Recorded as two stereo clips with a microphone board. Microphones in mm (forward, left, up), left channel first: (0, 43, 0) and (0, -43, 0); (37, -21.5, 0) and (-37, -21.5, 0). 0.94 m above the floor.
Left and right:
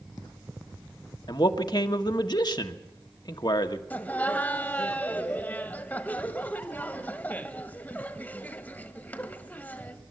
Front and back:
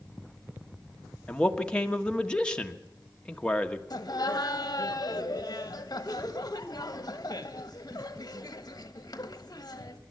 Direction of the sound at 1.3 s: 75° left.